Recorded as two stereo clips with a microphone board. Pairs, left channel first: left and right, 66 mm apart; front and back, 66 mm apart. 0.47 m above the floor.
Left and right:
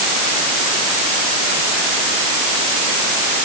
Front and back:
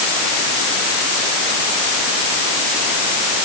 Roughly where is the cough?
I don't hear a cough.